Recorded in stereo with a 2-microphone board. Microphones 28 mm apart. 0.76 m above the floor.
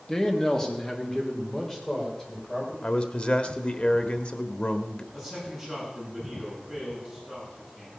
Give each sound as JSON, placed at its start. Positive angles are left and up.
{"t": 0.1, "sound": "a man speaking", "side_deg": 25, "distance_m": 1.4}
{"t": 2.8, "sound": "a man speaking", "side_deg": 45, "distance_m": 1.2}
{"t": 5.1, "sound": "a man speaking", "side_deg": 15, "distance_m": 8.5}